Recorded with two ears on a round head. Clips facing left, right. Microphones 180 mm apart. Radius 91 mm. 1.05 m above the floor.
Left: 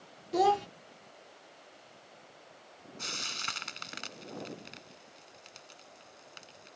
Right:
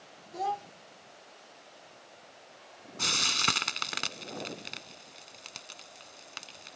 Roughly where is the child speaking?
Left.